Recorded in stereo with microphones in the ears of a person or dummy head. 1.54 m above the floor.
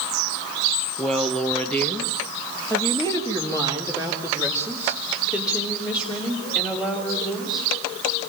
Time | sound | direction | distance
1.0 | a woman speaking | centre (ahead or behind) | 1.5 m